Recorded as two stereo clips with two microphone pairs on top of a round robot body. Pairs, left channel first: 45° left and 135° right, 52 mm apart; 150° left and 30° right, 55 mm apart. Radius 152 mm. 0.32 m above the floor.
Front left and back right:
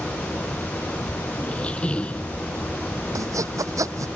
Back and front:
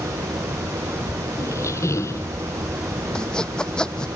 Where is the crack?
No crack in this recording.